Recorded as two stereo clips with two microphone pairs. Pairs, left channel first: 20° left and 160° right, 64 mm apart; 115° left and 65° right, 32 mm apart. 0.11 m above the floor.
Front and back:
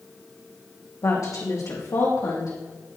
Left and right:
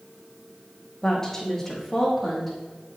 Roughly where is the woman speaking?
Ahead left.